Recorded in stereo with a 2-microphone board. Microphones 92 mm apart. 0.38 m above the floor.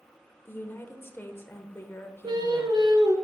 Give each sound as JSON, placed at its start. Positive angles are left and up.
{"t": 0.5, "sound": "a woman speaking", "side_deg": 25, "distance_m": 1.0}
{"t": 2.2, "sound": "singing", "side_deg": -50, "distance_m": 1.3}